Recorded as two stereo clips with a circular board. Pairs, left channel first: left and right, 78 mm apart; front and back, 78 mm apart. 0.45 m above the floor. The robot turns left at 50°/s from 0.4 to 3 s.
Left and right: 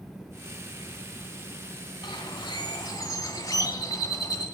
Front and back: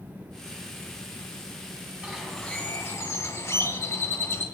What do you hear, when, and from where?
2.0 s a bird: 100° left, 2 m; by 4.5 s 50° left, 2 m